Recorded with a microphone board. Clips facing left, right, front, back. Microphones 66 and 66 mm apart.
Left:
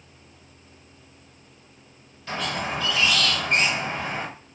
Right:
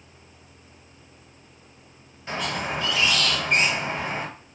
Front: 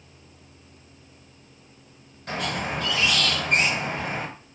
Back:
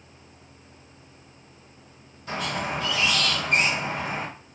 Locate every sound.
2.3 s a squeak: 20° right, 1.5 m